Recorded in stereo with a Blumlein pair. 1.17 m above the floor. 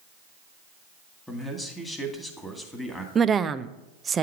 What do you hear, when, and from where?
1.3 s a man speaking: 5° left, 2 m
3.1 s a woman speaking: 20° right, 0.5 m